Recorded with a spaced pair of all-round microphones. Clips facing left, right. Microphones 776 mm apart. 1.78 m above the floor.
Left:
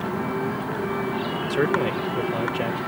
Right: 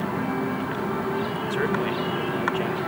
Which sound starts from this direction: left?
A man speaking, at 1.5 s.